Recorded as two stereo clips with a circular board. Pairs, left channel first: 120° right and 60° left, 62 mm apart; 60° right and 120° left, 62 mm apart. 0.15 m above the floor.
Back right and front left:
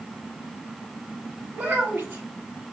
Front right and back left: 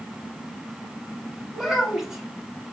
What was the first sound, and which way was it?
A child speaking, 40° left.